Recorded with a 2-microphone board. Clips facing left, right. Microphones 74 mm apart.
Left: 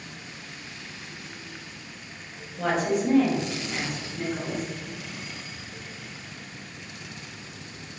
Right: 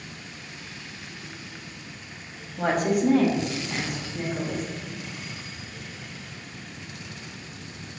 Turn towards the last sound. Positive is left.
turn(degrees=-35)  # may be behind; listen again after turning